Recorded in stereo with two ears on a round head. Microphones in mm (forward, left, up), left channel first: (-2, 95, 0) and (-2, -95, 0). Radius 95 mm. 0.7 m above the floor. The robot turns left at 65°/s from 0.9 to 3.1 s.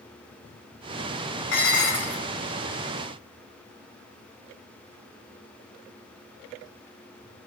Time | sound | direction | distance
1.5 | dishes clattering | 120° left | 5 m